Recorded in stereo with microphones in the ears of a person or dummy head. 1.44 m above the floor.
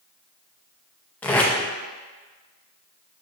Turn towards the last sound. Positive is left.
turn(degrees=10)  # may be behind; listen again after turning